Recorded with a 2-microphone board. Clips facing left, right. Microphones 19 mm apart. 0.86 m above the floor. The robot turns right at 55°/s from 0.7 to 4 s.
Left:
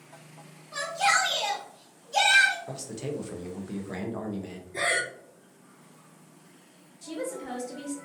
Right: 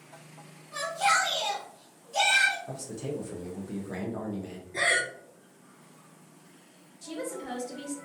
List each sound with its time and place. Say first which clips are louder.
0.7 s a shout: left 1 dB; 30° left, 1.1 m; by 2.6 s 130° left, 1.1 m
2.7 s a man speaking: left 1 dB; 80° left, 0.5 m; by 4.6 s 155° left, 0.5 m
4.7 s breathing: right 1 dB; 15° right (ahead or behind), 0.5 m
7.0 s a woman speaking: left 2 dB; centre (ahead or behind), 0.8 m